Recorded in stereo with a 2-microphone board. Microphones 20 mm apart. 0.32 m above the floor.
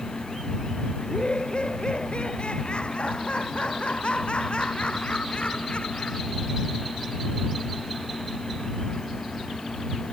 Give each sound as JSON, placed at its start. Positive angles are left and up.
{"t": 1.0, "sound": "laughter", "side_deg": 55}